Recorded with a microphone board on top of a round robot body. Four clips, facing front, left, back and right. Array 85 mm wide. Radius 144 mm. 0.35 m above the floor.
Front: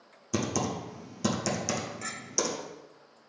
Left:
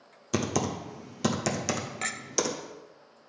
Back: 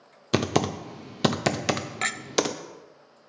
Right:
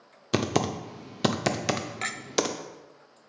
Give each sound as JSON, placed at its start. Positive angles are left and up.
{"t": 0.3, "sound": "typing on a keyboard", "azimuth_deg": -155, "distance_m": 0.7}
{"t": 2.0, "sound": "a clink", "azimuth_deg": -170, "distance_m": 0.5}